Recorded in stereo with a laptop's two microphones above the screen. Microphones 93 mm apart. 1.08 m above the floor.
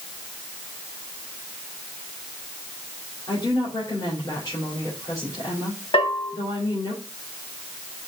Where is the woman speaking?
40° left (ahead or behind), 3.5 m.